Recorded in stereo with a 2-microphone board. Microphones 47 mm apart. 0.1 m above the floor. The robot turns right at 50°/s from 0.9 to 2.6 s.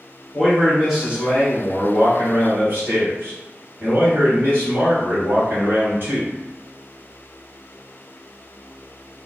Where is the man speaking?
170° right, 1.8 m; by 6.3 s 85° right, 1.8 m.